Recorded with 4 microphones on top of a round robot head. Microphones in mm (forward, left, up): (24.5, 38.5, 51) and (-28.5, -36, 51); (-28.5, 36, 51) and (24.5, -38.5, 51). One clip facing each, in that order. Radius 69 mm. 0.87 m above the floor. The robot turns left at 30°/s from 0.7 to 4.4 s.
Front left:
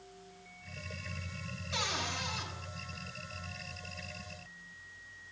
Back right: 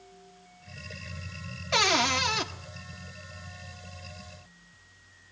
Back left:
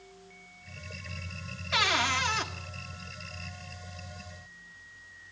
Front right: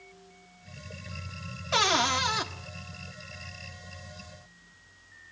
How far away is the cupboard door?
About 1.6 m.